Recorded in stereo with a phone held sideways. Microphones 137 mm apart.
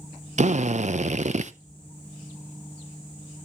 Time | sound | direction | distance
0.4 | a drill | 60° right (ahead or behind) | 0.7 m